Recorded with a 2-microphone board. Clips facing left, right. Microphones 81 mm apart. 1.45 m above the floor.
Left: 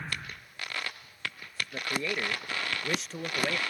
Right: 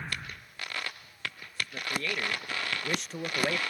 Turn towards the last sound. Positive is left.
turn(degrees=-15)  # may be behind; listen again after turning